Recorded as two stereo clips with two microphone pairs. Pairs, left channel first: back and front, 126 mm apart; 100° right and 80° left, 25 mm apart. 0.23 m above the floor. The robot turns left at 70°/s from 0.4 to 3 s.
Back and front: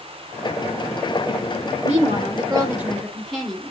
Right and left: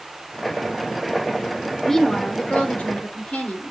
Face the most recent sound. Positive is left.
turn(degrees=-95)